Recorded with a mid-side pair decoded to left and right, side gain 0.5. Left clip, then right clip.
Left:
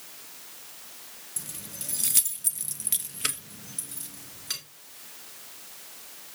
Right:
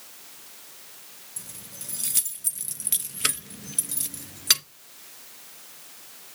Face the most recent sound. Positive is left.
turn(degrees=-75)